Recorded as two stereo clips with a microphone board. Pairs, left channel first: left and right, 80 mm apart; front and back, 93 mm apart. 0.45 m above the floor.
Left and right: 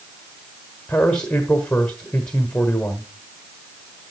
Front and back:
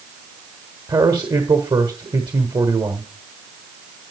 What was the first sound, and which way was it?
A man speaking, 165° left.